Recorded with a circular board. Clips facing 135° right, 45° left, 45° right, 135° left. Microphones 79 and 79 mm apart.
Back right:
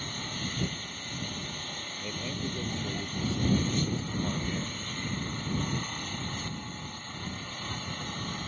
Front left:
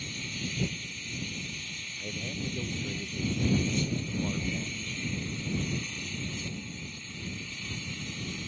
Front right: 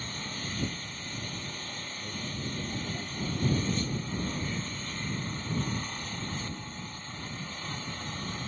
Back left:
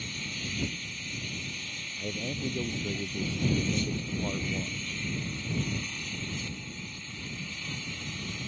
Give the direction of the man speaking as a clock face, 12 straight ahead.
7 o'clock.